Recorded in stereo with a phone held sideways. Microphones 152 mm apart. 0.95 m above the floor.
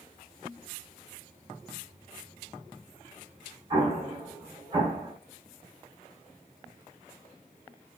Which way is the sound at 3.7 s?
30° right (ahead or behind).